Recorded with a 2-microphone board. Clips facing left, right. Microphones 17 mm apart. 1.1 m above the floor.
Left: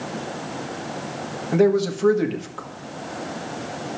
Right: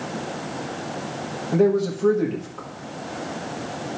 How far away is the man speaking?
About 1.7 m.